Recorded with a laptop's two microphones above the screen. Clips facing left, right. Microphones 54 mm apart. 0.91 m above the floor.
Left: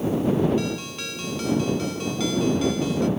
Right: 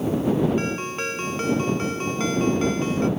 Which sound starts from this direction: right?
A ringtone, at 0.6 s.